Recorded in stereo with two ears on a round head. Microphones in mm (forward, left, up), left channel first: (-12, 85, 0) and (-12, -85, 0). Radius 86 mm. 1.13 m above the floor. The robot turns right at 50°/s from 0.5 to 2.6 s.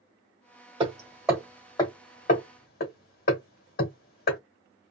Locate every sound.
0.8 s hammering: 25° right (ahead or behind), 1.5 m; by 4.4 s 50° left (ahead or behind), 1.5 m